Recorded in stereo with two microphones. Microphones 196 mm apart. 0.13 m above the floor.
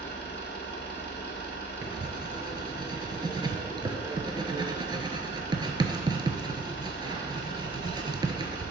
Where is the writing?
25° right (ahead or behind), 0.6 m.